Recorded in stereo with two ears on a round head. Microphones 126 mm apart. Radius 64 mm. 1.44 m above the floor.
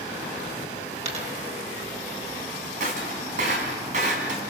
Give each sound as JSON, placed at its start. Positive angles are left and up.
{"t": 1.1, "sound": "a dropped coin", "side_deg": -50, "distance_m": 3.5}
{"t": 2.8, "sound": "breaking glass", "side_deg": -55, "distance_m": 4.0}